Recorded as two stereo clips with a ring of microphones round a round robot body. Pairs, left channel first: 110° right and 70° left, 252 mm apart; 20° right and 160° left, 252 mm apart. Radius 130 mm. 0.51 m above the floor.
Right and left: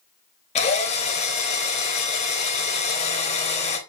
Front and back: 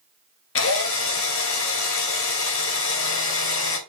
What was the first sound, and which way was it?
A drill, 50° right.